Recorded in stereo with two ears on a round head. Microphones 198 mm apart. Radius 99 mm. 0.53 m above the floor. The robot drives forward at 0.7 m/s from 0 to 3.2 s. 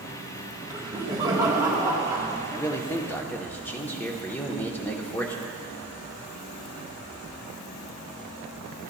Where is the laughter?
15° right (ahead or behind), 1.1 m.